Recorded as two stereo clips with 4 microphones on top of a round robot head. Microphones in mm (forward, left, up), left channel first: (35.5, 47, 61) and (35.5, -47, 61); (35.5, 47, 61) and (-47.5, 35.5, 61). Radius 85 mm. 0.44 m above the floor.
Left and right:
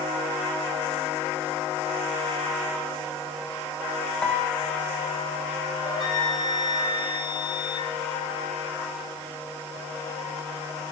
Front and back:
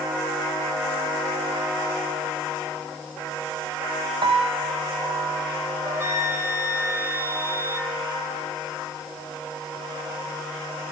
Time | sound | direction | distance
4.2 | a piano | 170° left | 2.5 m
5.8 | a flute | 130° left | 3.5 m